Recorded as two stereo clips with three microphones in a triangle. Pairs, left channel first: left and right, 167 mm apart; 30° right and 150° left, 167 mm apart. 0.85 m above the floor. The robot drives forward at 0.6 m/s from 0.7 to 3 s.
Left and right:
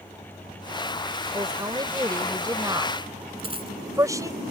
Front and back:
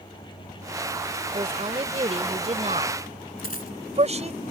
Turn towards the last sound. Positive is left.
turn(degrees=-40)